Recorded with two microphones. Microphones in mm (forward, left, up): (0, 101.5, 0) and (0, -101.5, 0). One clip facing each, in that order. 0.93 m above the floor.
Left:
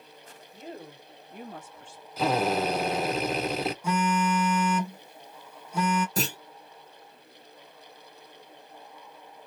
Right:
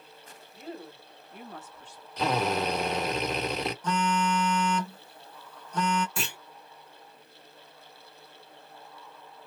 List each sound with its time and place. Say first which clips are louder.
0.5 s a woman speaking: right 1 dB; 25° left (ahead or behind), 2 m; by 2.1 s 5° left (ahead or behind), 1.1 m
2.2 s a drill: left 2 dB; 5° left (ahead or behind), 1.3 m
3.8 s a phone buzzing: left 1 dB; 10° left (ahead or behind), 0.7 m
6.2 s a clunk: left 7 dB; 40° left (ahead or behind), 0.9 m